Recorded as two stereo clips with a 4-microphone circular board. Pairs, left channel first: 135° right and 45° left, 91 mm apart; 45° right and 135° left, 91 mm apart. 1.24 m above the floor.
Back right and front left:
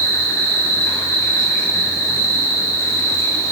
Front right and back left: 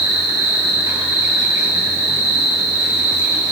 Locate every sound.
0.0 s an insect: 175° left, 5 m